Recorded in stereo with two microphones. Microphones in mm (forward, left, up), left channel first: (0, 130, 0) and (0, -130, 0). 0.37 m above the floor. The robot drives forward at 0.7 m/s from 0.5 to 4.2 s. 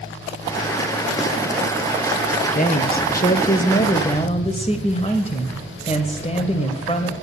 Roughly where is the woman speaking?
Left.